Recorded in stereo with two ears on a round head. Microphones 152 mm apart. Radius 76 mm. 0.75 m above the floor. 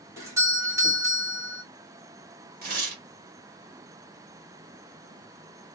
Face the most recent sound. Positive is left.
turn(degrees=-55)  # may be behind; listen again after turning